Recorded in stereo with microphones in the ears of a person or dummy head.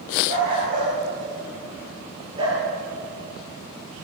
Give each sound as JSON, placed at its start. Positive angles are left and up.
{"t": 0.3, "sound": "a dog barking", "side_deg": -45, "distance_m": 9.0}